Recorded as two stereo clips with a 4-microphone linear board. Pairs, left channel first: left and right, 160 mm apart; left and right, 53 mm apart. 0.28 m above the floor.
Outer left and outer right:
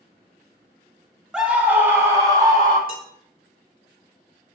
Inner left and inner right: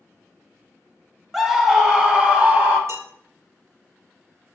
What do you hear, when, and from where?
1.3 s a scream: 5° right (ahead or behind), 1.2 m; by 2.8 s 25° right (ahead or behind), 1.8 m
2.9 s dishes clattering: 60° right (ahead or behind), 4 m